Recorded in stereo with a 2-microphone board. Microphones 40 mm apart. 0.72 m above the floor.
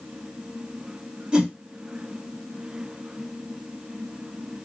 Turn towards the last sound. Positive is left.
turn(degrees=-25)  # may be behind; listen again after turning